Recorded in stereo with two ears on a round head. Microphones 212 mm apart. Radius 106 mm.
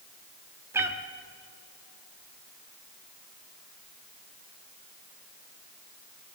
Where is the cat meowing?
10° right (ahead or behind), 0.9 m.